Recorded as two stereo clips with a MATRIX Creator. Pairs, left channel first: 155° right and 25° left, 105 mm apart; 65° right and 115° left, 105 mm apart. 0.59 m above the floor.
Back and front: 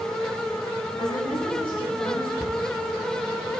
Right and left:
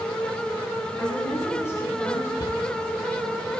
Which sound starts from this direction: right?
A cupboard door, at 2.4 s.